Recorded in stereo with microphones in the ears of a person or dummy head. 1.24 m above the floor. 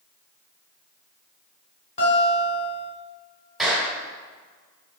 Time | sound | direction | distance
2.0 | a guitar | 40° left (ahead or behind) | 3.5 m
3.6 | a clap | centre (ahead or behind) | 3.5 m